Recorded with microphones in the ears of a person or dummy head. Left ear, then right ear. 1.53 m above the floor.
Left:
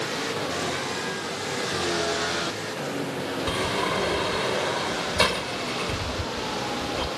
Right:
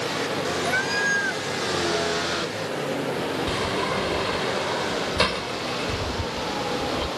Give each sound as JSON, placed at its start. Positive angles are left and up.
{"t": 0.7, "sound": "a cat meowing", "side_deg": -50}
{"t": 3.5, "sound": "a sliding door", "side_deg": 10}